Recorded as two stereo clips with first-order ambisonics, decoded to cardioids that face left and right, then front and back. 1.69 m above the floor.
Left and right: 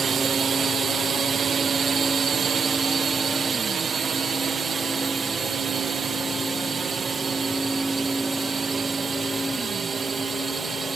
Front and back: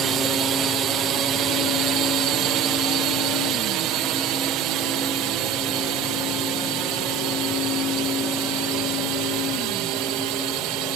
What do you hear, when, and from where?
0.0 s a drone: 145° right; by 10.9 s 165° right